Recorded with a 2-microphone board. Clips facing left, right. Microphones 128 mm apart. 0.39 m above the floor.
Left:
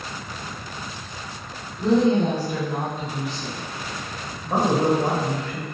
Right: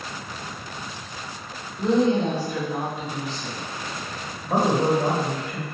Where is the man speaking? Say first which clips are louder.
Left 1 dB; 15° right (ahead or behind), 1.2 m.